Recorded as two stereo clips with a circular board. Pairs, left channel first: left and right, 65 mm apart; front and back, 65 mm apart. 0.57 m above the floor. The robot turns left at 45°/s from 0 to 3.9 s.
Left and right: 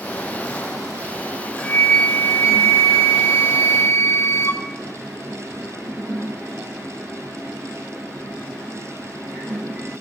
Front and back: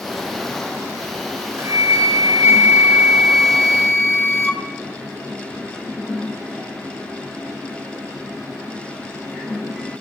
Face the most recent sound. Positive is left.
turn(degrees=65)